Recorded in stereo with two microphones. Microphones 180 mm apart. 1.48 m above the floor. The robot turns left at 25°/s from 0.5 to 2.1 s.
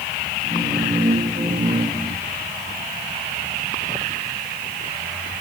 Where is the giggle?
No giggle in this recording.